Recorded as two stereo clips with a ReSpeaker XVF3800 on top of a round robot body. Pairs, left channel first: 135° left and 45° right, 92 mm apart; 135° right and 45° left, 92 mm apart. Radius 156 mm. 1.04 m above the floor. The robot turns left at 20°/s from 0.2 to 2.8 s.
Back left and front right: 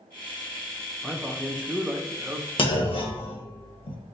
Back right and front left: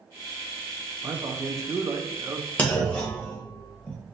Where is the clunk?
150° left, 1.1 m.